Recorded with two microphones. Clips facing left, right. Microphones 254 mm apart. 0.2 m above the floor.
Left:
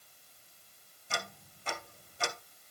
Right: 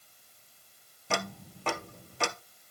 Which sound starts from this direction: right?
Ticking, at 1.1 s.